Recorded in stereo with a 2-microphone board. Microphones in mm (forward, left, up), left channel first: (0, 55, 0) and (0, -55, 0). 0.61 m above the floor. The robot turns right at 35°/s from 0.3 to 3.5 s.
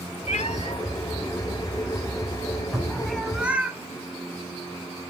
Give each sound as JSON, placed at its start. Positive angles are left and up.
{"t": 0.3, "sound": "a cat meowing", "side_deg": 80, "distance_m": 0.7}
{"t": 2.7, "sound": "a cupboard door", "side_deg": 0, "distance_m": 3.0}